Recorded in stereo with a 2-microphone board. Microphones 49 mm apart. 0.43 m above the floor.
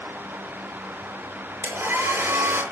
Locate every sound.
1.6 s a hair dryer: 60° right (ahead or behind), 5.5 m